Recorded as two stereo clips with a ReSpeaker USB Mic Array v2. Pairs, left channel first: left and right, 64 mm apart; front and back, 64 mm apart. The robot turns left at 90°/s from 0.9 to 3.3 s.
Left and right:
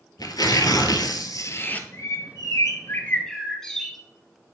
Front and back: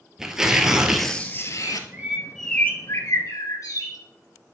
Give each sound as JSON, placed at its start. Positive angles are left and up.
{"t": 0.2, "sound": "tearing paper", "azimuth_deg": 100, "distance_m": 0.9}
{"t": 1.6, "sound": "a bird", "azimuth_deg": 155, "distance_m": 1.5}